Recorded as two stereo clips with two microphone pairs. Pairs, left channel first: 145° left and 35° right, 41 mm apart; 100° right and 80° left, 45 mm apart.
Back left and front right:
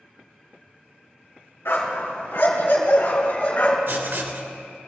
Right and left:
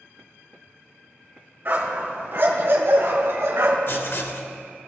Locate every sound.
1.6 s a dog barking: 125° left, 3 m; by 3.8 s 100° left, 3 m
3.9 s writing: 70° right, 1.1 m